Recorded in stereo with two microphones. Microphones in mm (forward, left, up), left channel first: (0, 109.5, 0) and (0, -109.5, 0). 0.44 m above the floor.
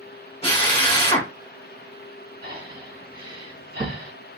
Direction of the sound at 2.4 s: 65° right (ahead or behind).